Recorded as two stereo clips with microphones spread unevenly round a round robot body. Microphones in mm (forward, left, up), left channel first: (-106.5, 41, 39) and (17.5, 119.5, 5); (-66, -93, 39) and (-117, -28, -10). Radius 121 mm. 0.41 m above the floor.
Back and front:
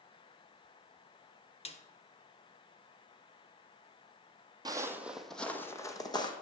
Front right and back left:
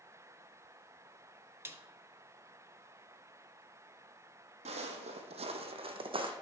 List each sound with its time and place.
1.6 s a snare drum: 160° left, 0.9 m
4.7 s footsteps: 100° left, 0.9 m; by 6.3 s 160° left, 1.3 m